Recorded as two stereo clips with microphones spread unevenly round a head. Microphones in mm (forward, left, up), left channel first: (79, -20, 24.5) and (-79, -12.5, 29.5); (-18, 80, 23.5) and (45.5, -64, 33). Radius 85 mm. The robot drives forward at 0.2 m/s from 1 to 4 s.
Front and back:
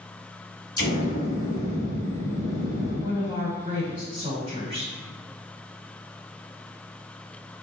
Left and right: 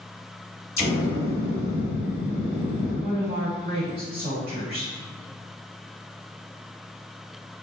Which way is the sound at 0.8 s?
50° left.